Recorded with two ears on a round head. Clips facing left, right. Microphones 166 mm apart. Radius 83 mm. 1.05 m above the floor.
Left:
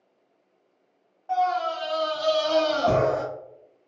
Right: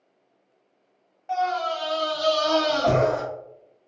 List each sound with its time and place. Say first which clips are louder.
1.3 s a scream: left 1 dB; 25° right (ahead or behind), 1.2 m; by 3.2 s 80° right, 1.9 m